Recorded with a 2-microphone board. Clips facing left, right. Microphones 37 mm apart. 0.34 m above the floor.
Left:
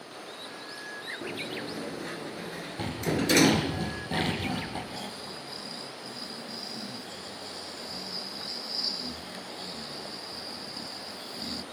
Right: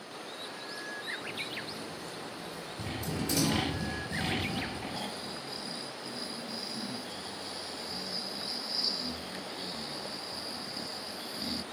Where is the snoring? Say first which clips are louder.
Even; 5° right (ahead or behind), 1.3 m.